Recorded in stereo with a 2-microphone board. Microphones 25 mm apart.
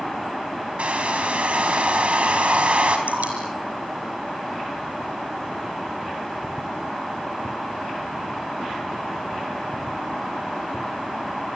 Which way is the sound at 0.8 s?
55° right (ahead or behind).